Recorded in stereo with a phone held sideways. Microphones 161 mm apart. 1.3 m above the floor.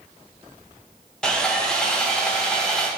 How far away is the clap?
No clap in this recording.